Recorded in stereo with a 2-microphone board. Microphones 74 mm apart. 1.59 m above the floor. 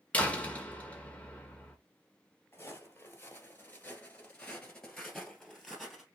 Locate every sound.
0.1 s a door slam: 20° left (ahead or behind), 1.2 m
2.5 s footsteps: 30° left (ahead or behind), 1.9 m; by 6.0 s 5° right (ahead or behind), 2 m